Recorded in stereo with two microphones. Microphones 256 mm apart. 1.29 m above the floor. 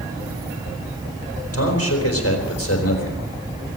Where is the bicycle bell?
I don't hear a bicycle bell.